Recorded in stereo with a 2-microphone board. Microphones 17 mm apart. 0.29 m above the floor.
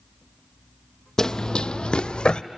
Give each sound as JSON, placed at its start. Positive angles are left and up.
{"t": 1.2, "sound": "running footsteps", "side_deg": 30, "distance_m": 0.6}